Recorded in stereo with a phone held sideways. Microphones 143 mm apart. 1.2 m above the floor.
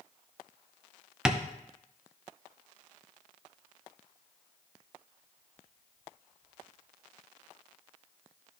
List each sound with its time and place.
1.2 s tapping: 5° right (ahead or behind), 0.6 m